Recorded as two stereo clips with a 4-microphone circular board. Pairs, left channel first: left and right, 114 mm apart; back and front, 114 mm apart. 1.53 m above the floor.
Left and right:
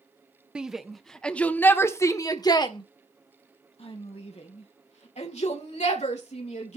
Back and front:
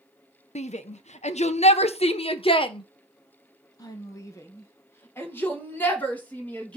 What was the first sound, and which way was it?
A shout, 170° right.